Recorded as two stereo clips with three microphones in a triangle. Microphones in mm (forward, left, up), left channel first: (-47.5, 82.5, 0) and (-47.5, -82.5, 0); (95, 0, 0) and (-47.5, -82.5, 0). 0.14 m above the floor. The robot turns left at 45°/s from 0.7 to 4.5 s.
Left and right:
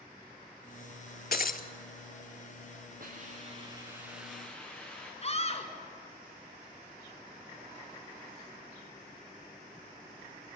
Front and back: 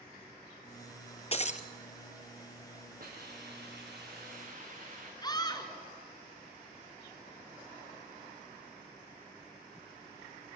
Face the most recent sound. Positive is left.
turn(degrees=80)